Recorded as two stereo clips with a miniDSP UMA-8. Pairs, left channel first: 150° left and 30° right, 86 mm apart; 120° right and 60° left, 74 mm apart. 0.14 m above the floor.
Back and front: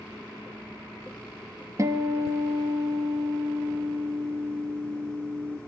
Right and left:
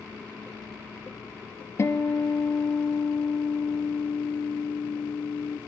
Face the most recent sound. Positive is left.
turn(degrees=-75)